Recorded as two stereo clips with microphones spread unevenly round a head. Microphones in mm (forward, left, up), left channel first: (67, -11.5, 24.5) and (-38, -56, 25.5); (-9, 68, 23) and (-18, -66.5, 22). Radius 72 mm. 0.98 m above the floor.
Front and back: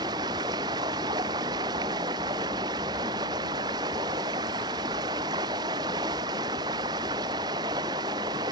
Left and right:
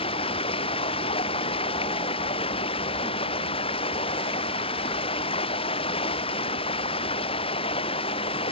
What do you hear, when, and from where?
0.0 s running water: 140° left